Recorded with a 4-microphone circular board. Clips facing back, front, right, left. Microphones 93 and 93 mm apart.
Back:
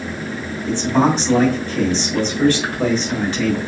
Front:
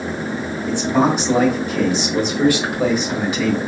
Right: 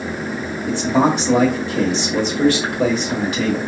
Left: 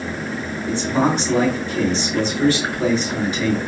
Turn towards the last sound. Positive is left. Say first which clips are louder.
# back 1 dB, right 3 dB
turn(degrees=-80)